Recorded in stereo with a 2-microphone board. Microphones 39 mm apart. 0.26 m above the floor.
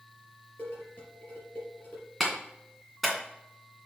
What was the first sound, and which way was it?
Dishes clattering, 50° left (ahead or behind).